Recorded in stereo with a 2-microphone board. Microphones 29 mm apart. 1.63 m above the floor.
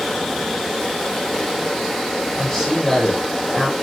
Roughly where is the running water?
Centre.